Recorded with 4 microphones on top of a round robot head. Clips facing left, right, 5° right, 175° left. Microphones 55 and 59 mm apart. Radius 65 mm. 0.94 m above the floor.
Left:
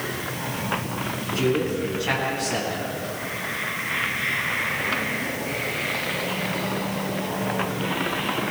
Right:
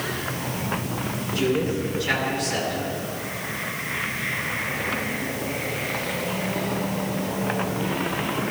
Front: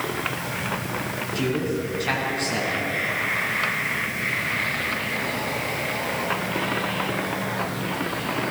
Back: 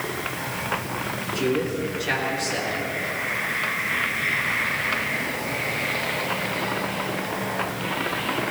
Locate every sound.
1.4 s a man speaking: 35° left, 8.5 m